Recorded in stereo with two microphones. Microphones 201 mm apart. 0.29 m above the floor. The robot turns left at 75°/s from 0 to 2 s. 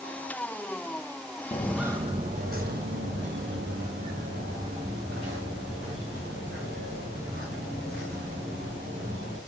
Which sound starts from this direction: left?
Footsteps, at 1.5 s.